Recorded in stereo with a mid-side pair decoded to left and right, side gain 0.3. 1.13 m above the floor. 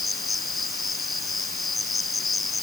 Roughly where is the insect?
Ahead left.